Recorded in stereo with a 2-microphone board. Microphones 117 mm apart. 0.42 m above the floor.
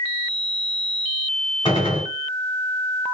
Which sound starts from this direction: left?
A gunshot, at 1.6 s.